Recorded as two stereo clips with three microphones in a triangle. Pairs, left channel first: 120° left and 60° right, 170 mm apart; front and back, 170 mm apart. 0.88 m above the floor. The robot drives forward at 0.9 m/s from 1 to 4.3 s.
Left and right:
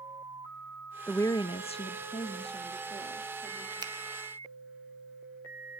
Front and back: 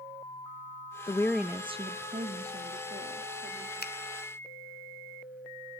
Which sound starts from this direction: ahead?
A finger snap, at 3.8 s.